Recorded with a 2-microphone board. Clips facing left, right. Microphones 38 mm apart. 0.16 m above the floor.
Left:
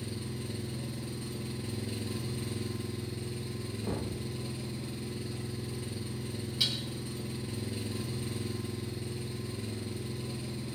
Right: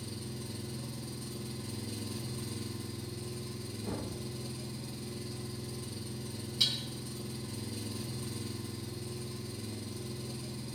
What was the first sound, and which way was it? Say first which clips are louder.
An engine running: left 3 dB; 35° left (ahead or behind).